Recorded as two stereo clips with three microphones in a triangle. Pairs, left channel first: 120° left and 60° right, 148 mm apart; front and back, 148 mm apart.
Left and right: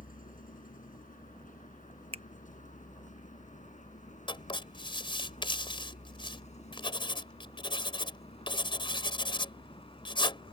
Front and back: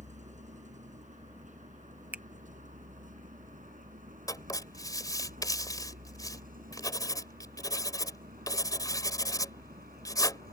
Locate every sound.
0.0 s a vehicle: 145° left; by 10.5 s 170° left
2.1 s a finger snap: 105° right
4.3 s writing: 65° left